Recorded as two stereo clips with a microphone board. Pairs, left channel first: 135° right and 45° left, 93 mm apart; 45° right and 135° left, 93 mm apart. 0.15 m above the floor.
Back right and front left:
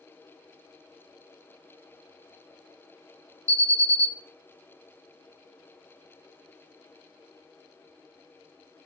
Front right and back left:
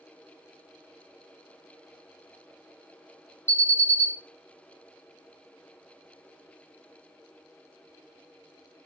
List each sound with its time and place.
3.5 s an alarm: 10° left, 1.0 m